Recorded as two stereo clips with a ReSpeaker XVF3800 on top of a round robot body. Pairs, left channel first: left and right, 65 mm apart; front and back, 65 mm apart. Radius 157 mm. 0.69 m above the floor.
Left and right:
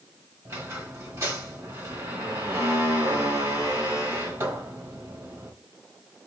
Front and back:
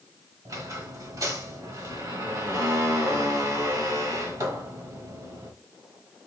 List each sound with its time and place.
0.5 s a squeak: 145° right, 1.7 m